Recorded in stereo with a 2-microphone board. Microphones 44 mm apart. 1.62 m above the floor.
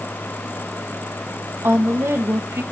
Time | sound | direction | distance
1.6 | a woman speaking | 80° right | 2.5 m